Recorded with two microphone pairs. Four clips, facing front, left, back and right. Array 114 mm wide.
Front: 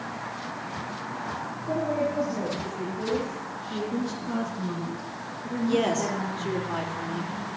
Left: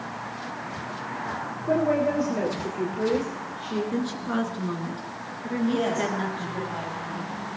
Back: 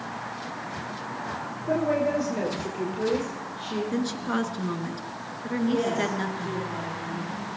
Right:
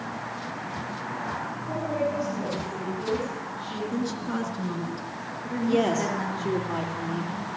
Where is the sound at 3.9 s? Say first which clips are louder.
Left 2 dB, back 2 dB; 165° left, 2 m.